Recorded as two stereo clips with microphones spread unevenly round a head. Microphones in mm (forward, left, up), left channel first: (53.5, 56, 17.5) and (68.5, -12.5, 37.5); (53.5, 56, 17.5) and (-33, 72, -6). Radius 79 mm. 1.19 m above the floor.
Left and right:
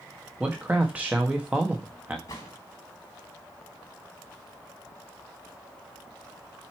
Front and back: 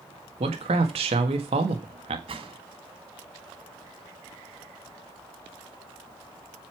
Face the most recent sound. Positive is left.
turn(degrees=160)